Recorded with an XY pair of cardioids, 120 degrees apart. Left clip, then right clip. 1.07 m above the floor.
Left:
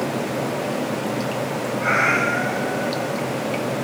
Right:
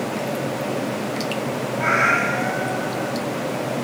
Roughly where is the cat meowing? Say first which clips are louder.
Right 1 dB; right.